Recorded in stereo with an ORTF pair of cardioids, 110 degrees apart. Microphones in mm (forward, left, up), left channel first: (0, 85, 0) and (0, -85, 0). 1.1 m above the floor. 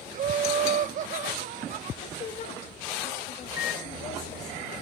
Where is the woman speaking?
45° left, 5.5 m.